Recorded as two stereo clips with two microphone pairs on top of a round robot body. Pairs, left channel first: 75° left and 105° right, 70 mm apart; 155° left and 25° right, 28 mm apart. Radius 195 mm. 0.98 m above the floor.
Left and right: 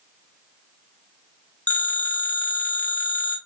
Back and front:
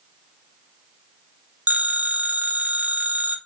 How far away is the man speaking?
No man speaking in this recording.